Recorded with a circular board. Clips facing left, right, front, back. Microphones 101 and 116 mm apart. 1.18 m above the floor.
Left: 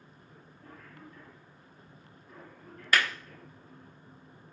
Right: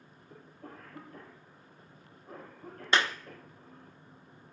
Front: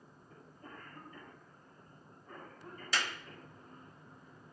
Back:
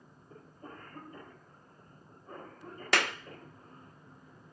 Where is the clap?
155° right, 0.6 m.